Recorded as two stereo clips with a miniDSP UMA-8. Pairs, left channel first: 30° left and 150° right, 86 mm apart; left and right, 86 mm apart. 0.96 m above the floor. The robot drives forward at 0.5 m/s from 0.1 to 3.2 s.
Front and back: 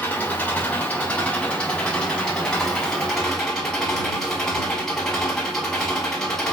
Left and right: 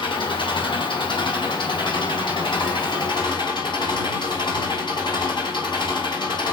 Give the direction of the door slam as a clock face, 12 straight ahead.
No door slam in this recording.